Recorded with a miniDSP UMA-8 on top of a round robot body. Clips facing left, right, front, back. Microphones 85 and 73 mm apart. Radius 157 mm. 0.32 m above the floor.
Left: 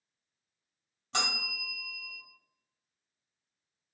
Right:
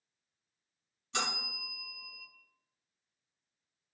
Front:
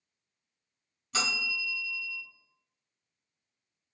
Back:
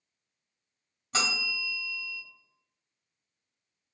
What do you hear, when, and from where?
1.1 s a bell: 125° left, 2.0 m